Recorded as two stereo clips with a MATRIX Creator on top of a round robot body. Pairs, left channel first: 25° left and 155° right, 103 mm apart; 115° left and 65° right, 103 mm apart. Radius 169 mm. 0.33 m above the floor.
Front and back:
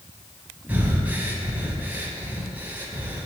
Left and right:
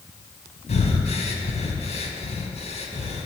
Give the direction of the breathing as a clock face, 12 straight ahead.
8 o'clock.